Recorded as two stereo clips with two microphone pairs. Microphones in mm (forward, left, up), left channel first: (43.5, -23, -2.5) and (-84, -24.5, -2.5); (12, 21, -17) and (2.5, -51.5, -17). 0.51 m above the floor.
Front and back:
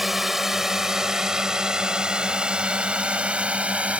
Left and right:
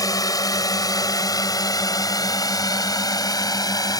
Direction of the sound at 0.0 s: 95° left.